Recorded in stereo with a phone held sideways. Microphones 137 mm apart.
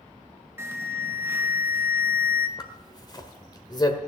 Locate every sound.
0.6 s an alarm: 20° right (ahead or behind), 1.5 m
2.6 s a zipper: 30° left (ahead or behind), 1.4 m